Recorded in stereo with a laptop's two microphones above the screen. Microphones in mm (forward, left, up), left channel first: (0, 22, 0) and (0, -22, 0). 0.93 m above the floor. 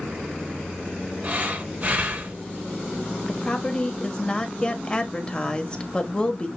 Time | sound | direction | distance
1.2 | breathing | 35° right (ahead or behind) | 2.5 m
3.3 | a woman speaking | 25° left (ahead or behind) | 1.3 m